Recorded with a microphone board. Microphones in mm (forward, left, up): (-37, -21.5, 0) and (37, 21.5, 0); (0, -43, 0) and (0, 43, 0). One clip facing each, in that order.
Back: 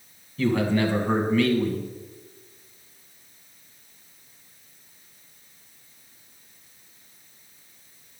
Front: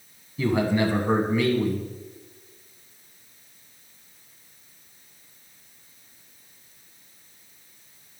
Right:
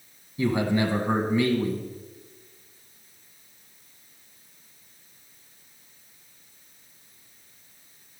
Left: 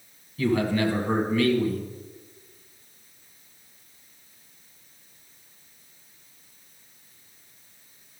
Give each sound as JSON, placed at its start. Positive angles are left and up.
{"t": 0.4, "sound": "a man speaking", "azimuth_deg": -40, "distance_m": 1.1}